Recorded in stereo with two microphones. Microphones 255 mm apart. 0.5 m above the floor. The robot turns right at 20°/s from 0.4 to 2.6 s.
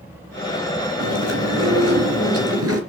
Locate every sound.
1.0 s chewing: 100° right, 3 m; by 2.8 s 65° right, 3 m